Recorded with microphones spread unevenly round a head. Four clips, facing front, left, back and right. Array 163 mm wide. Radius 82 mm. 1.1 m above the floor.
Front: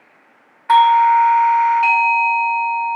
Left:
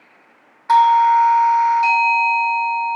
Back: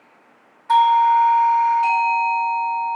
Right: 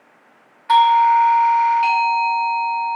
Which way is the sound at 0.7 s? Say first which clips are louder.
Left 1 dB, front 3 dB; 10° left.